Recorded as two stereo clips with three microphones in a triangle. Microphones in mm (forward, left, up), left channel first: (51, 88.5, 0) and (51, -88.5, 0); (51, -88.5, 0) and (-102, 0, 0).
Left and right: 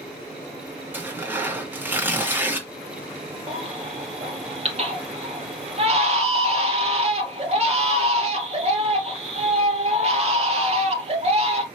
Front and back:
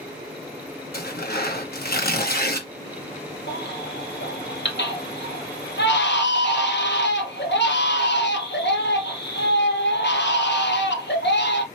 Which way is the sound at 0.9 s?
10° right.